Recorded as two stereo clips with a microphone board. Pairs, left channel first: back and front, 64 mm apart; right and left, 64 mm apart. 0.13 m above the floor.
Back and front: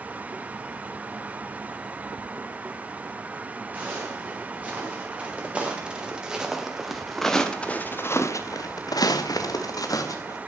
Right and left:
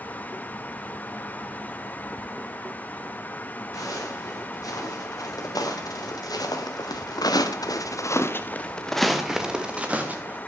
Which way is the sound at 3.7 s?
65° right.